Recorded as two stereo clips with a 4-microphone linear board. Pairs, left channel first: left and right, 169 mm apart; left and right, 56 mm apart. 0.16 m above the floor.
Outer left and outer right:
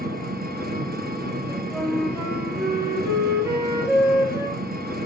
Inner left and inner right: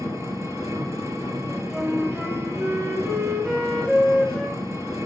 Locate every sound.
0.0 s an engine running: 65° right (ahead or behind), 2 m
1.5 s a flute: 15° right (ahead or behind), 4 m